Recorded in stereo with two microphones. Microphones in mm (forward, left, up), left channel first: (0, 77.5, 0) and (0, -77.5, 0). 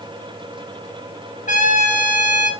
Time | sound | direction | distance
1.5 | a trumpet | 55° left (ahead or behind) | 1.8 m